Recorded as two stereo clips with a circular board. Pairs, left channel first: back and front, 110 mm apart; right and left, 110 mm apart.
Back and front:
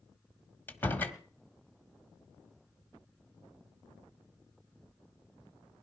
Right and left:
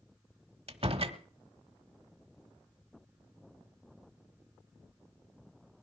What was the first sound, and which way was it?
A door slam, 110° left.